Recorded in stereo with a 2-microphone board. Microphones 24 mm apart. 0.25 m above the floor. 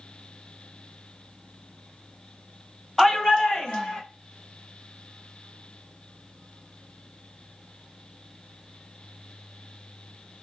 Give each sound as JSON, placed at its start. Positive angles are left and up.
{"t": 3.0, "sound": "a shout", "side_deg": 20, "distance_m": 1.0}